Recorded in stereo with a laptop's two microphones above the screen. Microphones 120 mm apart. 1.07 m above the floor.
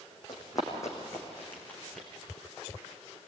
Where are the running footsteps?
35° left (ahead or behind), 4 m; by 2.1 s 5° left (ahead or behind), 4.5 m.